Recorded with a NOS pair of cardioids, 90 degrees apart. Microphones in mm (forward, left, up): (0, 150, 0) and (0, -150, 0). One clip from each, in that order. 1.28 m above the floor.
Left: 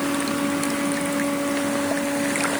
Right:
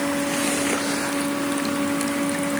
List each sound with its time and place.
Only background noise.